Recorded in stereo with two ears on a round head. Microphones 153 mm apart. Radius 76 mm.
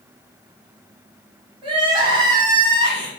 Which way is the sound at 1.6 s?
30° right (ahead or behind).